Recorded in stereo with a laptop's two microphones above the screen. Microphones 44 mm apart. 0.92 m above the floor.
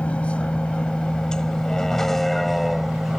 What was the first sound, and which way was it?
A vehicle, 30° left (ahead or behind).